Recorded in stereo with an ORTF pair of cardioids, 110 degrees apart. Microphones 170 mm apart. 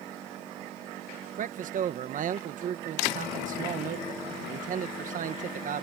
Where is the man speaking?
50° right.